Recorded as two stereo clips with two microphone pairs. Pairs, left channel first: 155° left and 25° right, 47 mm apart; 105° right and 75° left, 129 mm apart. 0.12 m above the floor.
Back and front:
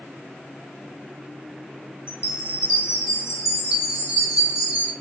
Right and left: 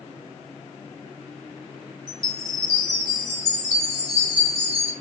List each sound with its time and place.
2.1 s a chime: 175° left, 3 m